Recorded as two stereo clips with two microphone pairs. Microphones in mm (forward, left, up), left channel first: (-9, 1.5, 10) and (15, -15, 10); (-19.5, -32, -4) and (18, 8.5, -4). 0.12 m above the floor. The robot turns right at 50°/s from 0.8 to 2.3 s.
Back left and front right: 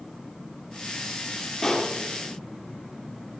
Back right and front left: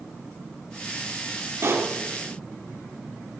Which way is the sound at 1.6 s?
70° left.